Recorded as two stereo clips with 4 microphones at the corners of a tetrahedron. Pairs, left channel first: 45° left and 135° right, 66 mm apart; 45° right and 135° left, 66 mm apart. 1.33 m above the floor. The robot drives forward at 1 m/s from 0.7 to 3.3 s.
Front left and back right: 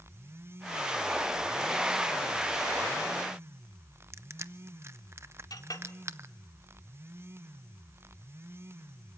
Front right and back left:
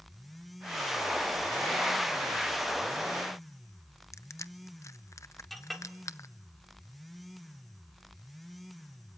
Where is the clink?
45° left, 1.8 m.